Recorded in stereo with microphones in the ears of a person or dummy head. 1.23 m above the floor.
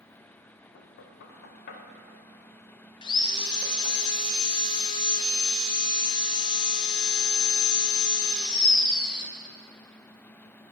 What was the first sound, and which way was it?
Knocking, 55° left (ahead or behind).